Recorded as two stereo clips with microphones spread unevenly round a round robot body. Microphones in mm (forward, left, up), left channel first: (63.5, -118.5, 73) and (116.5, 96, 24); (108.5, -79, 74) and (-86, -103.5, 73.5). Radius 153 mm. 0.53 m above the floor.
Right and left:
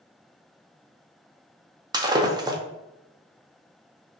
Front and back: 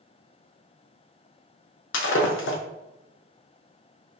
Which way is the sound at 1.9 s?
10° left.